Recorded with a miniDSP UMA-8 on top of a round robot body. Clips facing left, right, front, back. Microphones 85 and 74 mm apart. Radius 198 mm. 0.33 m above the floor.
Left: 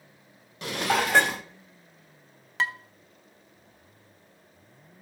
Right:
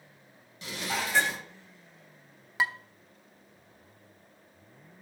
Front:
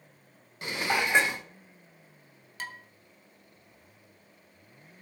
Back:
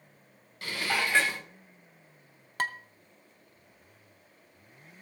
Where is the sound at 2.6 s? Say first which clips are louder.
Left 1 dB, back 8 dB; 170° right, 1.0 m.